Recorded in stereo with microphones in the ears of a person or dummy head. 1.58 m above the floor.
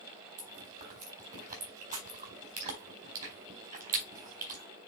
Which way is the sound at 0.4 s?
45° right (ahead or behind).